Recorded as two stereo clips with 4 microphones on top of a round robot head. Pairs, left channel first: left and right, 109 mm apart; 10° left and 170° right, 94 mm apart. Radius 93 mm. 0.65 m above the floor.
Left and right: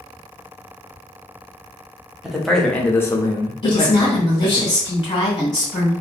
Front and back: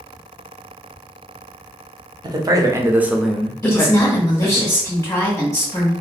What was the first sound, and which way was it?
A man speaking, 175° right.